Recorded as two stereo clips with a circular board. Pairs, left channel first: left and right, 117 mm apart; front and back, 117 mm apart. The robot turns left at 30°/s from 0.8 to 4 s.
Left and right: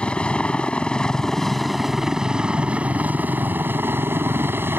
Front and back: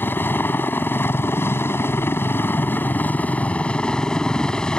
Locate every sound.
0.0 s a helicopter: 25° left; by 4.8 s 70° right